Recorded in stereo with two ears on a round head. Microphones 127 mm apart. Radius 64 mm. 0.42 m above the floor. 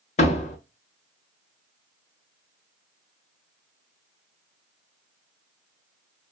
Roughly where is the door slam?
Left.